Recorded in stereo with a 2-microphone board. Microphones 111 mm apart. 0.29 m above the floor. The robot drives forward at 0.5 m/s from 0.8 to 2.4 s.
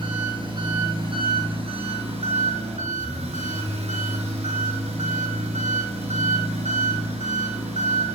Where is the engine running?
45° right (ahead or behind), 1.6 m; by 8.1 s 70° right (ahead or behind), 1.2 m.